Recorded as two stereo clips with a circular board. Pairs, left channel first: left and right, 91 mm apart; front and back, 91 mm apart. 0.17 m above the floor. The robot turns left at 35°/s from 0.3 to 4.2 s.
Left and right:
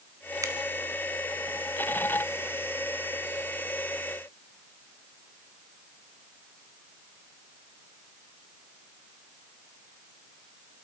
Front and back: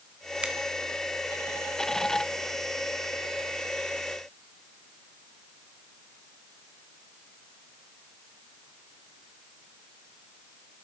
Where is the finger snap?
105° right, 1.3 m; by 0.5 s 110° right, 1.3 m.